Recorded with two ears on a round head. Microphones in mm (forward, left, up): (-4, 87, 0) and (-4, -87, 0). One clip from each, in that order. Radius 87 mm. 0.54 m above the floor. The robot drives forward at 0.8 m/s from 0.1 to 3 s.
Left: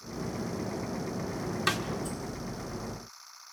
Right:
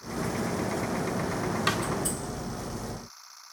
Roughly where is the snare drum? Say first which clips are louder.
Right 1 dB; centre.